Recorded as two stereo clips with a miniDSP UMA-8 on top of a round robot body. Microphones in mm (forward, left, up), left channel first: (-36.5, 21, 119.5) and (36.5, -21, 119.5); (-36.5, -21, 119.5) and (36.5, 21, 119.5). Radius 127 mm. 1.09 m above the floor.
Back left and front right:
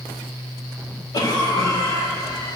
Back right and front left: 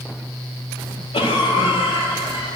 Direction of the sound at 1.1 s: 165° right.